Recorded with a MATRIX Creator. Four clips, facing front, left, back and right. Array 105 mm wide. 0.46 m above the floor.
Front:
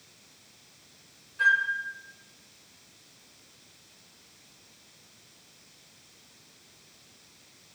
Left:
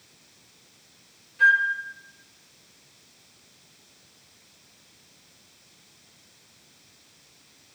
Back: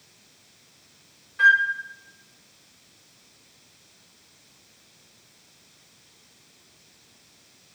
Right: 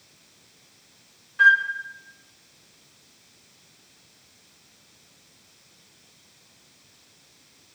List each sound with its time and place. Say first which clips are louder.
1.4 s a flute: right 2 dB, back 6 dB; 125° right, 3.5 m